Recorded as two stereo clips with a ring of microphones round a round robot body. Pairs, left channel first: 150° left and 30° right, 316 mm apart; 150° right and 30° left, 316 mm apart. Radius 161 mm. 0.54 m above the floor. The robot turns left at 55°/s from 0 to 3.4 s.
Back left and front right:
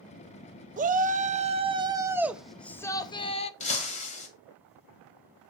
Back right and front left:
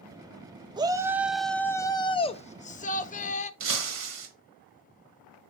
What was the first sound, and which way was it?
A shout, 25° right.